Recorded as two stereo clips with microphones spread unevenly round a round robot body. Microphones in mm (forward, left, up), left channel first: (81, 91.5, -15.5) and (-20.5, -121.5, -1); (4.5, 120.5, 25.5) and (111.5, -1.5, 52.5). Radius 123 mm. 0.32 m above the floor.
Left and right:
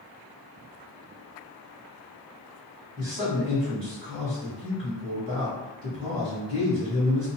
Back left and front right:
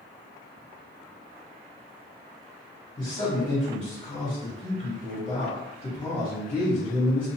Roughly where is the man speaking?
Behind.